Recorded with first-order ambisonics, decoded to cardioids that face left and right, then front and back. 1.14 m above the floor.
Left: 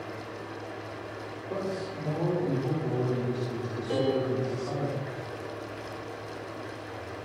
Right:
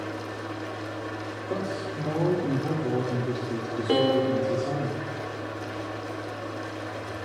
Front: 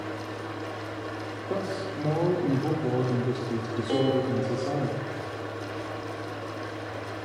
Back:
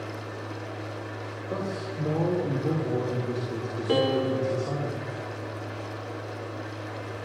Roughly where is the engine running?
Ahead right.